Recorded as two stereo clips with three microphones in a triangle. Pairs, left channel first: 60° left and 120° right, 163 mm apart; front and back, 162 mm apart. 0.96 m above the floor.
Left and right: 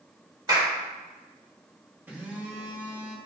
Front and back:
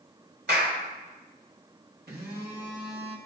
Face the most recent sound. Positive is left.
turn(degrees=160)